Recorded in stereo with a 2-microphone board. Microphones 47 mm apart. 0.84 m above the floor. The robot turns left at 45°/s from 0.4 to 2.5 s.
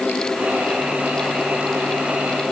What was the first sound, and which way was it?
Only background noise.